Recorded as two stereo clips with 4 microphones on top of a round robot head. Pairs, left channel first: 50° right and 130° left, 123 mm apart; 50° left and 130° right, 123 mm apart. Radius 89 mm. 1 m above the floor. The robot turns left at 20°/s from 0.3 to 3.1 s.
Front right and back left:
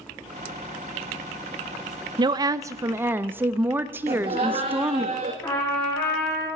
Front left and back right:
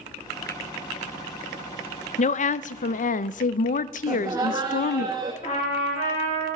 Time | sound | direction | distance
2.2 | a woman speaking | 75° left | 0.5 m
4.1 | laughter | 165° left | 1.2 m
5.4 | a trumpet | 20° left | 4 m